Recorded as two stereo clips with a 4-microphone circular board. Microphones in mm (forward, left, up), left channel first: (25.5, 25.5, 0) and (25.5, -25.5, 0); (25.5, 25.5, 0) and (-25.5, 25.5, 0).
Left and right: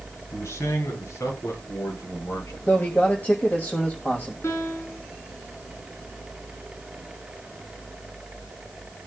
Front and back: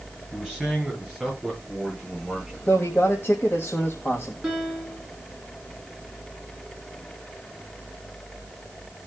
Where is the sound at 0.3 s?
95° left, 8.5 m; by 2.6 s 105° left, 11.5 m.